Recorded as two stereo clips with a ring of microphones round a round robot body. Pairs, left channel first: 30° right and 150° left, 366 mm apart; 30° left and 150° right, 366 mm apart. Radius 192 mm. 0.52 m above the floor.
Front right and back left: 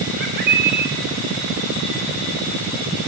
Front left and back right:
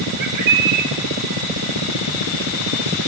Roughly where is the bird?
Behind right.